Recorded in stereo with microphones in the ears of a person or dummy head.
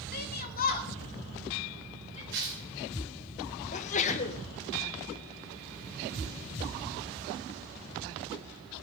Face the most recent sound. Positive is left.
turn(degrees=40)  # may be behind; listen again after turning